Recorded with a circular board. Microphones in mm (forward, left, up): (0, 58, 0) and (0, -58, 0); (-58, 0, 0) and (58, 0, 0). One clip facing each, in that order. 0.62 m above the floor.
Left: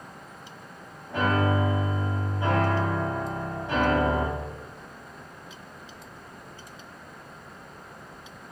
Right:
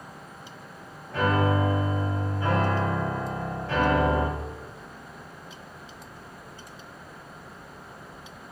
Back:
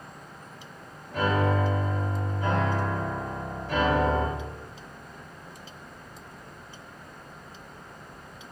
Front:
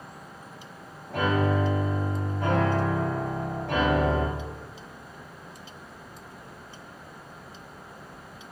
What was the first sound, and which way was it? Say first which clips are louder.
A piano: right 1 dB, even; 20° left.